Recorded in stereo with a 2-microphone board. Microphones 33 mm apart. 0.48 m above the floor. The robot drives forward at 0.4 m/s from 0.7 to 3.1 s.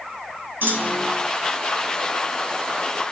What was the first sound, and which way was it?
A clunk, 75° right (ahead or behind).